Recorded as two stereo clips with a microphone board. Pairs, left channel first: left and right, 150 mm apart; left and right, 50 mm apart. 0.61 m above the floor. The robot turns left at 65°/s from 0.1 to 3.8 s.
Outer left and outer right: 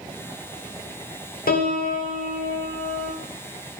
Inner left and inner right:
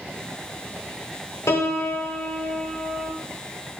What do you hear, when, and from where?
1.5 s a piano: 105° left, 0.5 m; by 3.1 s straight ahead, 0.5 m